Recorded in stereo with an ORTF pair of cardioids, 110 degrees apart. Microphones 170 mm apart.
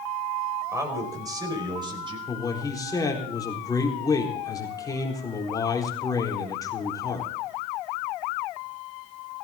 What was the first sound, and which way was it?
A man speaking, 15° right.